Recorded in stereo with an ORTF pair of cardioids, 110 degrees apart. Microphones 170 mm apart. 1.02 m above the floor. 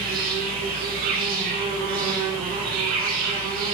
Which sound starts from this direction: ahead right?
An insect, at 0.0 s.